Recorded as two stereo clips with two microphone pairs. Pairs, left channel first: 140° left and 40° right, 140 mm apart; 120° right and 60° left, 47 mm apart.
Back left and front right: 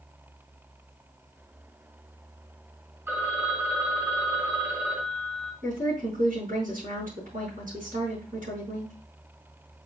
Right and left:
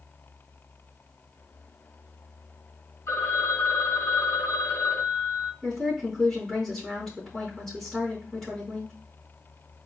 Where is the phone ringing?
115° right, 1.6 m.